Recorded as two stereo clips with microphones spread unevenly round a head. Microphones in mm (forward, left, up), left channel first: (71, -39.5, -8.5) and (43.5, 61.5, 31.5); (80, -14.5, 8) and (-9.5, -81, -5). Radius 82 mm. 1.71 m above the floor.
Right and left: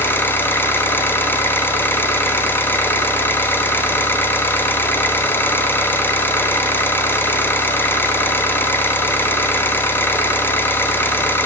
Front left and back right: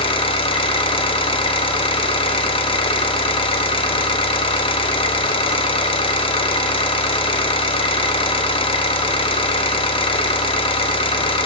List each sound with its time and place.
0.0 s an engine running: 5° left, 1.0 m